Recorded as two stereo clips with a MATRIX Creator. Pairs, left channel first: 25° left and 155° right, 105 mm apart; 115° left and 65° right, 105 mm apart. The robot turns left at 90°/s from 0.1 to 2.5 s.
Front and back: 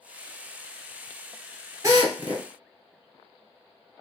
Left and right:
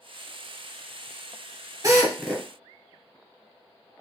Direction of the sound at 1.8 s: 105° right.